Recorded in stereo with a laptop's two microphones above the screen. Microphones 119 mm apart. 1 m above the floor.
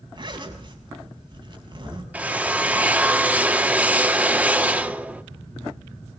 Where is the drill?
10° right (ahead or behind), 1.7 m.